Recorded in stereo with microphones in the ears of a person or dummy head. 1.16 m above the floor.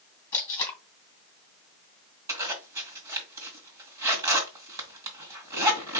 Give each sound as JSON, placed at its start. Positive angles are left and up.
{"t": 0.3, "sound": "tape being pulled", "side_deg": 20, "distance_m": 2.5}
{"t": 2.3, "sound": "a zipper", "side_deg": -20, "distance_m": 1.6}